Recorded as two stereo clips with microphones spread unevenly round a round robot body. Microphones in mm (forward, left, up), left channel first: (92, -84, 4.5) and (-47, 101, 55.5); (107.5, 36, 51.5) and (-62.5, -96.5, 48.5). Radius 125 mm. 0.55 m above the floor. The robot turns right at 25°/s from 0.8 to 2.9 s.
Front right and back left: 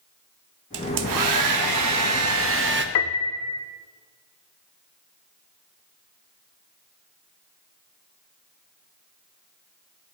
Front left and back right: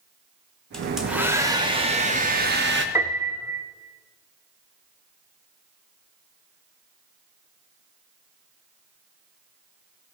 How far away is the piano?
About 0.7 m.